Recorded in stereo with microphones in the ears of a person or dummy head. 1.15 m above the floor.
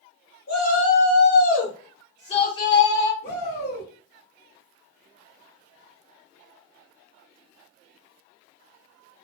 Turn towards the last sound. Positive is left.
turn(degrees=55)  # may be behind; listen again after turning